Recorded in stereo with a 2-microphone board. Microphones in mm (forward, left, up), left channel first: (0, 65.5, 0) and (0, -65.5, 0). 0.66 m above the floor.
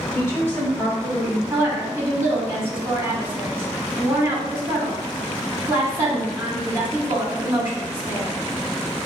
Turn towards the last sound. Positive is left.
turn(degrees=-20)  # may be behind; listen again after turning